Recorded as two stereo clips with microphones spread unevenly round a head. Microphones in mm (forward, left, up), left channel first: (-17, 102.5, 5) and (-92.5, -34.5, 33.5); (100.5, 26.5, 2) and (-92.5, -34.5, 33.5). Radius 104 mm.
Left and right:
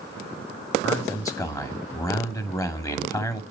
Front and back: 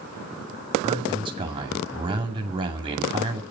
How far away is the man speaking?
About 2.5 m.